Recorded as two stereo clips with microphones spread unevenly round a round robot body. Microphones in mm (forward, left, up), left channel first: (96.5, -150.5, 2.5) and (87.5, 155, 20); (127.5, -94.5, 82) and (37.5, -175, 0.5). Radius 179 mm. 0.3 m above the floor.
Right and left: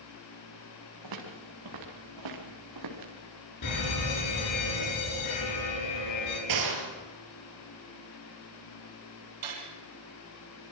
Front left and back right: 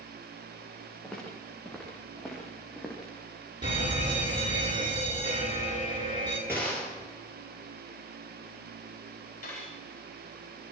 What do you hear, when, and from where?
1.0 s footsteps: 125° left, 5.5 m; by 3.1 s 130° left, 4.5 m
3.6 s a fire alarm: 120° right, 7.5 m
6.5 s a gunshot: 130° left, 4.5 m
9.4 s cutlery clinking: 95° left, 5.5 m